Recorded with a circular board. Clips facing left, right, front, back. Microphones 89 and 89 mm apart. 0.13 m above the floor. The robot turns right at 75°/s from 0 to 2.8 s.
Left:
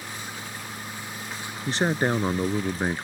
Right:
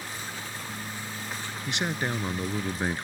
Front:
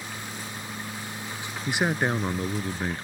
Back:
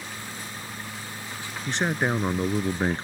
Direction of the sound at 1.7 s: 65° left.